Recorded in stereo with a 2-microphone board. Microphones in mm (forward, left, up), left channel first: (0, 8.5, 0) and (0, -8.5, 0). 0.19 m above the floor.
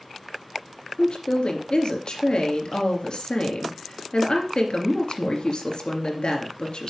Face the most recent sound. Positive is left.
turn(degrees=60)  # may be behind; listen again after turning